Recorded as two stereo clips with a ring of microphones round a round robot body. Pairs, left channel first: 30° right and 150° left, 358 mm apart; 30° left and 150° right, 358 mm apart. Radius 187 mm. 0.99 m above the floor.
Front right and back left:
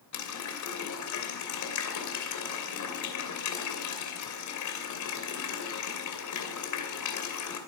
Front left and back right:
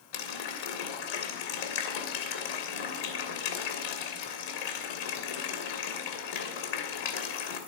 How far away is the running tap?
About 2.5 m.